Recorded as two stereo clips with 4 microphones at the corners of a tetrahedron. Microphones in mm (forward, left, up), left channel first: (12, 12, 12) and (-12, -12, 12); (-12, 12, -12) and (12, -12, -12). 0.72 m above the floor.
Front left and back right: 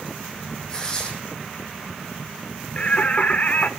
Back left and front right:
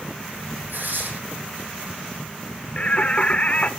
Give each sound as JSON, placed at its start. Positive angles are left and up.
{"t": 0.7, "sound": "tearing paper", "azimuth_deg": -25, "distance_m": 8.0}
{"t": 2.8, "sound": "singing", "azimuth_deg": 85, "distance_m": 1.2}